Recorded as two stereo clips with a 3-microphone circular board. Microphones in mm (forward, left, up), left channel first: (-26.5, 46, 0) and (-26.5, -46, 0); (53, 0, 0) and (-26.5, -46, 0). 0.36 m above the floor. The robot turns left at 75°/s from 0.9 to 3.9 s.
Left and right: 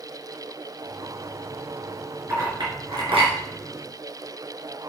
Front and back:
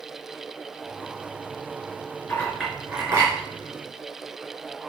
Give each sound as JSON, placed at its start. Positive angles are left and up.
{"t": 2.3, "sound": "a clink", "azimuth_deg": -30, "distance_m": 3.5}